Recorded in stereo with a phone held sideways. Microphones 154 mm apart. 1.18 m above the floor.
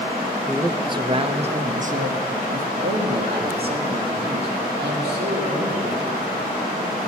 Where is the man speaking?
15° right (ahead or behind), 1.0 m; by 6.0 s 85° right, 3 m.